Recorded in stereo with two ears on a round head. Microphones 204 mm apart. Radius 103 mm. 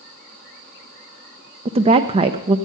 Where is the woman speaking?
25° right (ahead or behind), 0.5 m.